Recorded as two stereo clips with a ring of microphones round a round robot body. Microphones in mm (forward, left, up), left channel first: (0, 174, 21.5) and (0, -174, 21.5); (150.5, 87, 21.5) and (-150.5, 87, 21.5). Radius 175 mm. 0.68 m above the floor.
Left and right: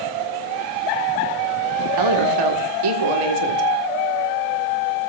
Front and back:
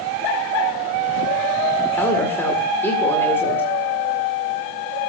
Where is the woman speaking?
85° right, 1.7 m.